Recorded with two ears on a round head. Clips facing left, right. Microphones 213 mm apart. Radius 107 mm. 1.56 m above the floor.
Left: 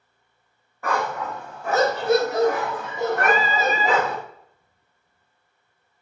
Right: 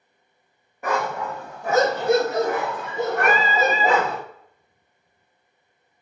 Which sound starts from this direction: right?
Singing, at 3.2 s.